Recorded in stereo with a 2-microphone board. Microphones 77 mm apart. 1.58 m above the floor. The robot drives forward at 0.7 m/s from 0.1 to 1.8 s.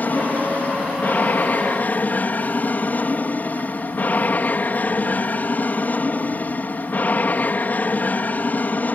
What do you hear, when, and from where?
0.0 s an aircraft: 20° left (ahead or behind)